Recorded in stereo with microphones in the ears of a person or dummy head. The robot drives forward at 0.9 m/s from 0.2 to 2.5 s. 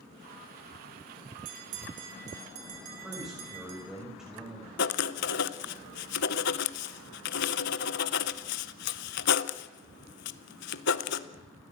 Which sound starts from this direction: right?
A bell, at 1.4 s.